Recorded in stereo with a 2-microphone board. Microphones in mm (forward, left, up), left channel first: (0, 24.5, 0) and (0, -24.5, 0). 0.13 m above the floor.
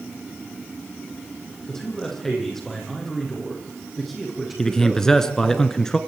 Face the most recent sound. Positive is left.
turn(degrees=10)  # may be behind; listen again after turning